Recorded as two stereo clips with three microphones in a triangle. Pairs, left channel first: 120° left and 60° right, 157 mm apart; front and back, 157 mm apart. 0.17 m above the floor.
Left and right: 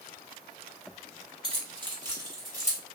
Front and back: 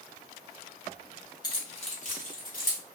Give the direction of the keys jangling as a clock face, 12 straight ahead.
1 o'clock.